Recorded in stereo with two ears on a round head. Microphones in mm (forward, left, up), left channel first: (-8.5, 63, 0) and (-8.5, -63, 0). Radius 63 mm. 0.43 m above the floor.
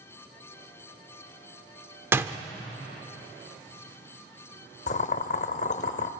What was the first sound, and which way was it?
A door slam, 15° right (ahead or behind).